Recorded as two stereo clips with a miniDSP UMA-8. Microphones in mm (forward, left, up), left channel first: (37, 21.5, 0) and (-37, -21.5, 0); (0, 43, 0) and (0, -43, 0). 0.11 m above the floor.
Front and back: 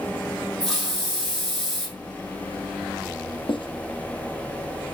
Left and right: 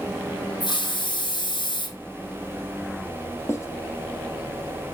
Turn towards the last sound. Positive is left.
turn(degrees=30)